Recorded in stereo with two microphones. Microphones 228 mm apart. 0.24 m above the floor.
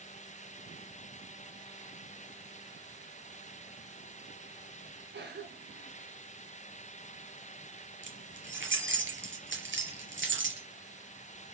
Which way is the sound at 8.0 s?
55° right (ahead or behind).